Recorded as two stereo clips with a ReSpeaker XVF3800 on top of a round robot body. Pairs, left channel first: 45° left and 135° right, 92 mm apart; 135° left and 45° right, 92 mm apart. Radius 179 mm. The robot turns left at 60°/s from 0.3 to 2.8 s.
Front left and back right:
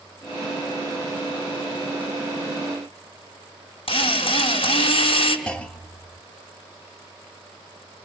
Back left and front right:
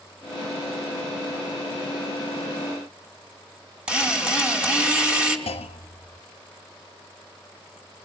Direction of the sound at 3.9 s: 35° left.